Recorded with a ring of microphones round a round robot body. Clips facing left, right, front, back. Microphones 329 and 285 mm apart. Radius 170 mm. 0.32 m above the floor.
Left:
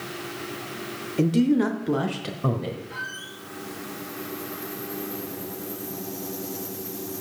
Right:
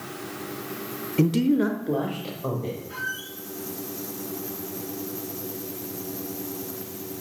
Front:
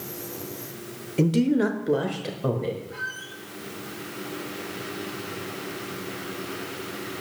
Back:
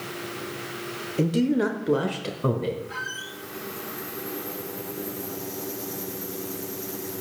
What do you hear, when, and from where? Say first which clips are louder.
1.2 s a man speaking: left 1 dB, front 1 dB; 55° right, 0.9 m; by 2.8 s 115° left, 1.6 m
2.9 s a squeak: right 2 dB, back 1 dB; straight behind, 3.5 m